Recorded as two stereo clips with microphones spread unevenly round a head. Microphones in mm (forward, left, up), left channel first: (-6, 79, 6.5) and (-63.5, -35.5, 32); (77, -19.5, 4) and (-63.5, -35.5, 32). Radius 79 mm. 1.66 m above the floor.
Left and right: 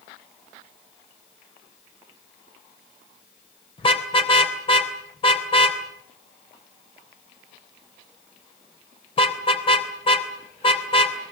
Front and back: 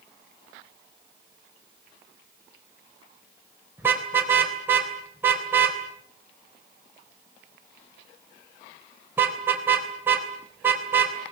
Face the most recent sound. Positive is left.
turn(degrees=115)